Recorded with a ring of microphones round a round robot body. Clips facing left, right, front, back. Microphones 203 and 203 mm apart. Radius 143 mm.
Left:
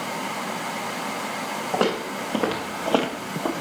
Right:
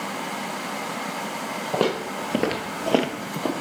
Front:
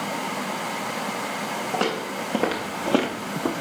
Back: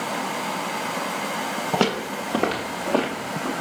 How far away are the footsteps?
About 0.8 m.